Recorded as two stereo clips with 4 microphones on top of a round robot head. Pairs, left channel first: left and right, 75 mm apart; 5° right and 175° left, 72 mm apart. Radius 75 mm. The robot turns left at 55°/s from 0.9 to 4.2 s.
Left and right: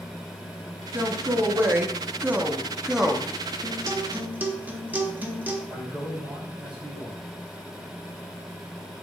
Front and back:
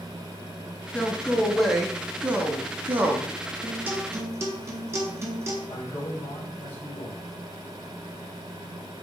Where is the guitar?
120° right, 0.8 m; by 5.6 s 150° right, 0.8 m.